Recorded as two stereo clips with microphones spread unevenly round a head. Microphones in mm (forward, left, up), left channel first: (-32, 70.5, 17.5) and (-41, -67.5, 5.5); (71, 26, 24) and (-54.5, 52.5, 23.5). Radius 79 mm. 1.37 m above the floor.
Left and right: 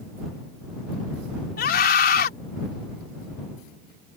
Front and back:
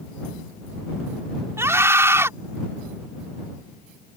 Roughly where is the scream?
Left.